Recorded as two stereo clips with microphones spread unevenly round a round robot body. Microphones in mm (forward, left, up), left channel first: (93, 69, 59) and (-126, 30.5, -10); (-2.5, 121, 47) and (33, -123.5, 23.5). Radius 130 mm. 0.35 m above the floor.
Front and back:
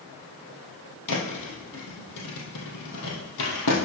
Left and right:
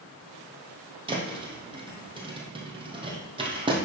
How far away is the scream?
No scream in this recording.